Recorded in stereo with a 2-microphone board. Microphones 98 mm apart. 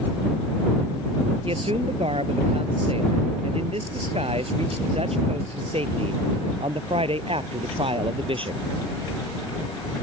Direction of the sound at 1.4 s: 75° right (ahead or behind).